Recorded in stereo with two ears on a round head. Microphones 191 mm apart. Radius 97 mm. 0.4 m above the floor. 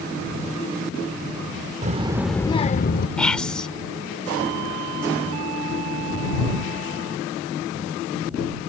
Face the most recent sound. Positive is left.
turn(degrees=5)  # may be behind; listen again after turning